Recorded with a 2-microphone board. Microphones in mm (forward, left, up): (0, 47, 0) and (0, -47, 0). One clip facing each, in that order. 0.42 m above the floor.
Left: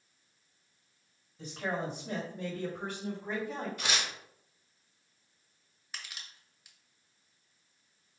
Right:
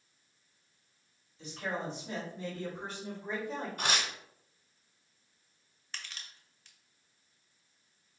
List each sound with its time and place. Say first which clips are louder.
1.4 s a man speaking: left 2 dB; 45° left (ahead or behind), 1.9 m; by 3.7 s 60° left (ahead or behind), 2 m
3.8 s tearing paper: right 5 dB; 45° right (ahead or behind), 1.2 m
5.9 s crushing: even; 10° left (ahead or behind), 0.7 m